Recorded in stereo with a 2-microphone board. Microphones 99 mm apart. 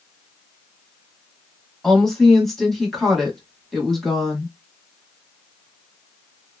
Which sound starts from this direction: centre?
A woman speaking, at 1.8 s.